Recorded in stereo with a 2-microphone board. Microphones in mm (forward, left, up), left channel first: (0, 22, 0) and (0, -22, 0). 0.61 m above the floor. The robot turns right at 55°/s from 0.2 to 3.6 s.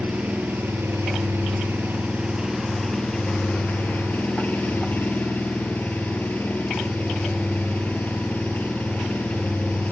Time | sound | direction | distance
0.0 | an engine running | 145° right | 3 m